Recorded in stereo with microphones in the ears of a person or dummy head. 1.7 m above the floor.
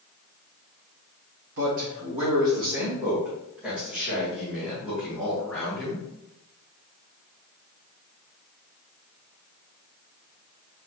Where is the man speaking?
50° right (ahead or behind), 0.7 m; by 6.0 s centre (ahead or behind), 3.5 m.